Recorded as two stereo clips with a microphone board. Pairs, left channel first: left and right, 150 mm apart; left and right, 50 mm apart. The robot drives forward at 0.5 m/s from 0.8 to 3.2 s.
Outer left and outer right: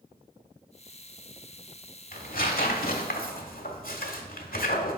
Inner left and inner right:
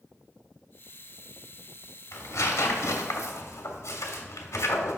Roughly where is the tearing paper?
Left.